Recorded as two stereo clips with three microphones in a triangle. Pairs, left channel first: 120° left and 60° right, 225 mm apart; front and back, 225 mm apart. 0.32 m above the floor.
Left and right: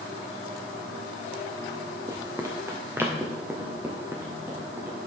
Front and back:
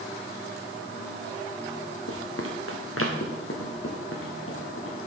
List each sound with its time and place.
2.1 s running footsteps: 15° left, 1.5 m; by 5.0 s 20° left, 4 m